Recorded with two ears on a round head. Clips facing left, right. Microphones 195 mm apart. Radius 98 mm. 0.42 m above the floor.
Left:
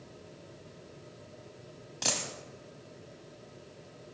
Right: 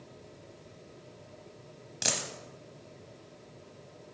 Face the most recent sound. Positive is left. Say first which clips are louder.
# even
turn(degrees=-15)  # may be behind; listen again after turning